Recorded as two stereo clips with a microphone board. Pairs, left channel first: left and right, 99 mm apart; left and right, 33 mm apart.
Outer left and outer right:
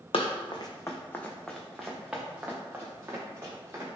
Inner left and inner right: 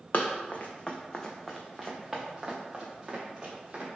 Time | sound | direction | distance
0.1 | running footsteps | 65° left (ahead or behind) | 0.6 m